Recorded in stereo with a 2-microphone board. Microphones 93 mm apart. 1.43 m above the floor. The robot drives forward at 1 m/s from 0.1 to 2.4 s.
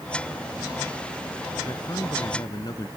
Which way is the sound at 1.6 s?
50° left (ahead or behind).